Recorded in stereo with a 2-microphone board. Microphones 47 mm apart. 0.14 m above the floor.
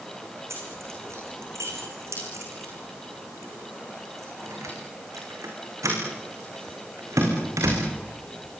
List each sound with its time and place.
0.5 s keys jangling: 65° right (ahead or behind), 7 m; by 7.8 s 80° right, 8 m